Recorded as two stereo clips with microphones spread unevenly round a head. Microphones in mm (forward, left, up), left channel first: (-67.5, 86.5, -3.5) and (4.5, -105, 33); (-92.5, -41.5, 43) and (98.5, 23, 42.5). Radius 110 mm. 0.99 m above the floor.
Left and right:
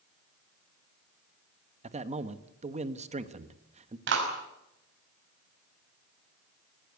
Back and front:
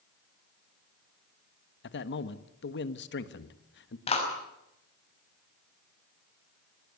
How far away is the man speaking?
About 1.3 m.